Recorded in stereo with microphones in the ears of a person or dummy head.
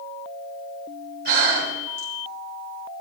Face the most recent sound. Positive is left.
turn(degrees=-55)  # may be behind; listen again after turning